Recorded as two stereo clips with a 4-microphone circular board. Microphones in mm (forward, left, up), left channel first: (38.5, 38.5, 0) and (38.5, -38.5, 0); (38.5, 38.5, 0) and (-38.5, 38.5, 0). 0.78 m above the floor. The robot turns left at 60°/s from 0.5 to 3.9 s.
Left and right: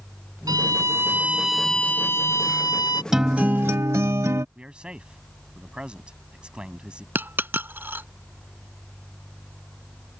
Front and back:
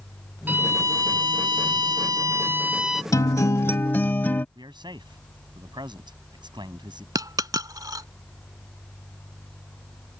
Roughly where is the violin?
Behind right.